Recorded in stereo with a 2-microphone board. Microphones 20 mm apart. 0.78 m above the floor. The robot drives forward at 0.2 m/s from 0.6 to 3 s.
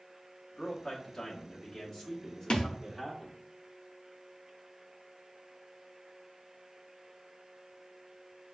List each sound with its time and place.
0.6 s a man speaking: 30° left (ahead or behind), 1.0 m; by 3.4 s 20° left (ahead or behind), 1.4 m
2.5 s a thud: 55° left (ahead or behind), 0.6 m